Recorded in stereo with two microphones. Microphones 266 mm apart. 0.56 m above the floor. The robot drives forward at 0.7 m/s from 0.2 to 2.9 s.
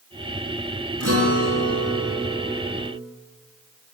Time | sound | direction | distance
1.0 | a guitar | 60° right (ahead or behind) | 6 m